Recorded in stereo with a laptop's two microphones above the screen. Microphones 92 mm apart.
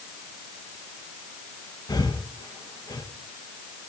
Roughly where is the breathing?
Left.